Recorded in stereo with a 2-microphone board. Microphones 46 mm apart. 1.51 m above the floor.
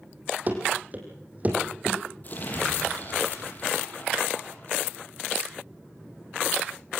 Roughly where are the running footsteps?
Right.